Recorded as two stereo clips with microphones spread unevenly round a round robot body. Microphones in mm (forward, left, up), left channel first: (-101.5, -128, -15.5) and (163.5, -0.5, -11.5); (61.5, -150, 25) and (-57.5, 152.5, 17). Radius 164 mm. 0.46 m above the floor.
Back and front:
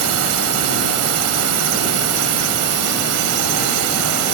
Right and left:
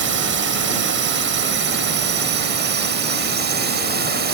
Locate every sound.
0.0 s a drone: 60° left; by 4.3 s 55° left